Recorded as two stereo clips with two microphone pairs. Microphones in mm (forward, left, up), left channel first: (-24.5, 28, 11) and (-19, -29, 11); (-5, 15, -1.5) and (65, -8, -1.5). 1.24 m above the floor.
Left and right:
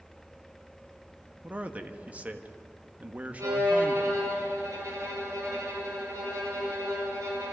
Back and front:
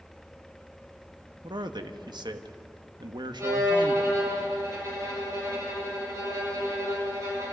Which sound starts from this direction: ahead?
A man speaking, at 1.4 s.